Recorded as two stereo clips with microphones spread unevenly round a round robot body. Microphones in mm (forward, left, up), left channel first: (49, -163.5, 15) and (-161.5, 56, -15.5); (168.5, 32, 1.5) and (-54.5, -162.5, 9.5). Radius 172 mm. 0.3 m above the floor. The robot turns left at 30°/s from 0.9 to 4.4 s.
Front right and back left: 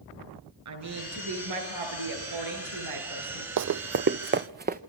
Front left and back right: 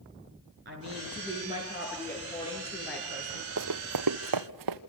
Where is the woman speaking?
160° left, 6 m; by 3.5 s 85° left, 6 m.